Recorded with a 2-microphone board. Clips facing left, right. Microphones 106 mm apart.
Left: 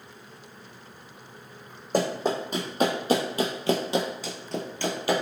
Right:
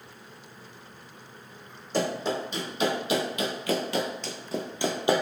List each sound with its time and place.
1.9 s running footsteps: 50° left (ahead or behind), 1.3 m; by 5.2 s 25° right (ahead or behind), 0.7 m